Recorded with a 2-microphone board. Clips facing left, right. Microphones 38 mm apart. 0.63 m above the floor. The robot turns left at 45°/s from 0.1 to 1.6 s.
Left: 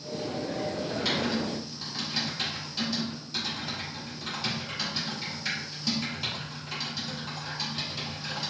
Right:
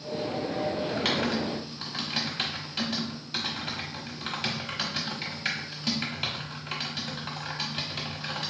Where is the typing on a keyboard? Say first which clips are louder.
Left 1 dB; 50° right (ahead or behind), 1.2 m; by 8.5 s 40° right (ahead or behind), 1.2 m.